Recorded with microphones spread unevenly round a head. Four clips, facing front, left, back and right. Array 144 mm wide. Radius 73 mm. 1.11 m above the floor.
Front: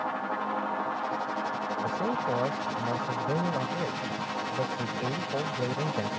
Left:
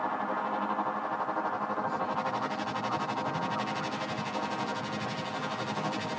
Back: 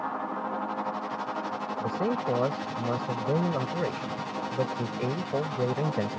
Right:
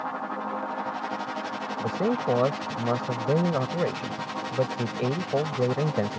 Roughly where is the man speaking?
Behind right.